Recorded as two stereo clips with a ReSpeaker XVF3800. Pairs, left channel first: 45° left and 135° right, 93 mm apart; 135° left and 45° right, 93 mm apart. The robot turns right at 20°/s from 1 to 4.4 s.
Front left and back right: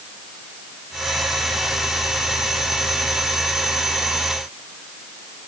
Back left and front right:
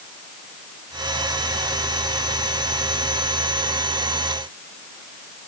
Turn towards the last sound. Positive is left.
No sound to turn to.